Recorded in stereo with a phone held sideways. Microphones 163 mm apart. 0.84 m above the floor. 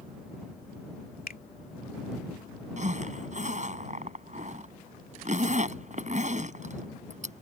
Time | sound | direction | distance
1.3 | a finger snap | 65° left (ahead or behind) | ?
2.8 | a zipper | 50° right (ahead or behind) | ?